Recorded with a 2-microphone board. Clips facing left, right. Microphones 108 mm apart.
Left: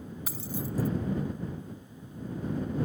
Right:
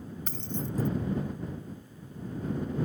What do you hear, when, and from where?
0.3 s keys jangling: 10° left (ahead or behind)